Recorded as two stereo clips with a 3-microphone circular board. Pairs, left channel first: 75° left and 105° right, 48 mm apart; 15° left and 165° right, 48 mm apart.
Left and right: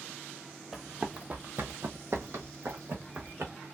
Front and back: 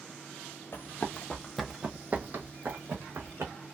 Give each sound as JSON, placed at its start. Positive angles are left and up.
{"t": 0.7, "sound": "running footsteps", "azimuth_deg": -25, "distance_m": 0.7}